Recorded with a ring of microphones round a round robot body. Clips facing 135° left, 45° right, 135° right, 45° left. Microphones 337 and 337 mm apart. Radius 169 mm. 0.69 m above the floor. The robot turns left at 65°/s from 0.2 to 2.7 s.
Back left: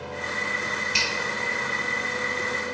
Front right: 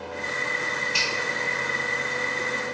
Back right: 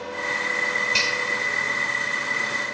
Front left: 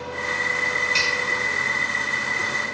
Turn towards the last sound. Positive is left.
turn(degrees=55)